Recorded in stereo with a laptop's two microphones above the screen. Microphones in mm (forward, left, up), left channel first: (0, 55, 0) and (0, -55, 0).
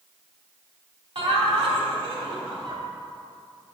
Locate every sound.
1.1 s laughter: 55° right (ahead or behind), 2.5 m